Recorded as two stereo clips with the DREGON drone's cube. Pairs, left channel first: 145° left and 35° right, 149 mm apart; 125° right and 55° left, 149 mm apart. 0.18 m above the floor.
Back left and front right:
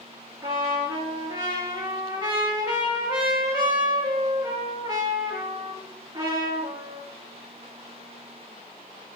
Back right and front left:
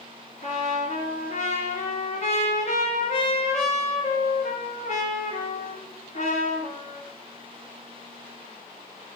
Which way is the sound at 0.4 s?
95° right.